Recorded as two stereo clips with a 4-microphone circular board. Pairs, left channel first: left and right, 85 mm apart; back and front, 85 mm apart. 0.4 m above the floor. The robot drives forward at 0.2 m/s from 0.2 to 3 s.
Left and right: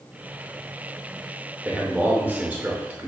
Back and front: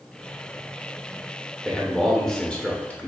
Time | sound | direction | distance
1.6 | a man speaking | 85° right | 0.8 m